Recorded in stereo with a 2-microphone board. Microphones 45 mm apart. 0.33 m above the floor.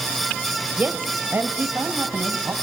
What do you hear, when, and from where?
0.8 s a woman speaking: 40° right (ahead or behind), 1.0 m; by 2.5 s 65° right (ahead or behind), 1.8 m